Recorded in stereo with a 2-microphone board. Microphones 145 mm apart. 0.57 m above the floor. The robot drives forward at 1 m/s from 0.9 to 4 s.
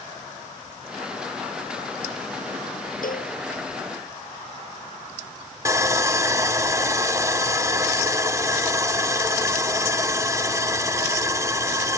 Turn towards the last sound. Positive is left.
turn(degrees=-20)  # may be behind; listen again after turning